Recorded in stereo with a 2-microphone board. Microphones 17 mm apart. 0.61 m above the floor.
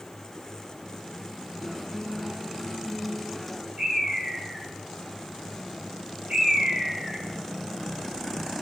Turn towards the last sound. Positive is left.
turn(degrees=-60)  # may be behind; listen again after turning